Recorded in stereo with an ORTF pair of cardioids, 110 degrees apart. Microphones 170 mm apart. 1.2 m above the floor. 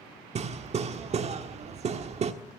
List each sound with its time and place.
0.3 s hammering: 40° right, 1.5 m